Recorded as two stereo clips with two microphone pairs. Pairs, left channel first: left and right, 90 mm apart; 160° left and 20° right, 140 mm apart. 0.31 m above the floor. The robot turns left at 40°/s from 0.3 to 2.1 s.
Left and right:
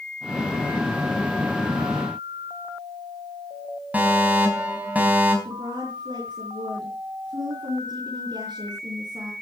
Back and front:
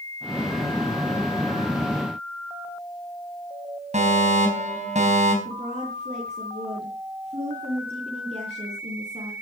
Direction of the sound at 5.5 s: 65° right.